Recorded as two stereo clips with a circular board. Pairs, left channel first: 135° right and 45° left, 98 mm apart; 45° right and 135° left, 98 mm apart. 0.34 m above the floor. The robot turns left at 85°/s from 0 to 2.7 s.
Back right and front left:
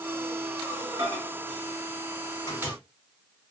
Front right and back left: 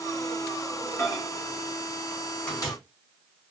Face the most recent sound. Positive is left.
turn(degrees=-135)